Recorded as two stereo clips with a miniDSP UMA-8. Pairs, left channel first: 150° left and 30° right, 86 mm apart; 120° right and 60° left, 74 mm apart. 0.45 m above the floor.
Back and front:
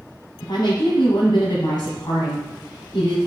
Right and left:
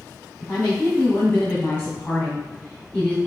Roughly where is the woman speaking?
Behind.